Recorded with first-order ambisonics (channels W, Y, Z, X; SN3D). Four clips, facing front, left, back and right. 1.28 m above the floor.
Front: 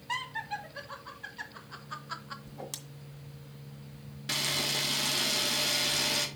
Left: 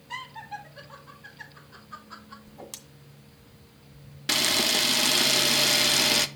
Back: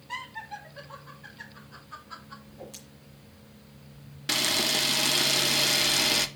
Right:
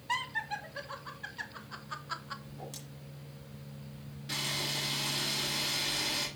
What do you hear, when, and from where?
0.1 s laughter: 60° right, 3 m; by 2.4 s 55° right, 1.2 m
2.5 s a whoosh: 35° left, 1.9 m
4.3 s a camera shutter: 115° left, 0.7 m